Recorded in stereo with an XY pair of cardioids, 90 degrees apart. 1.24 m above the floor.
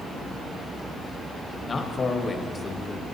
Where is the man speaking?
40° left, 1.2 m.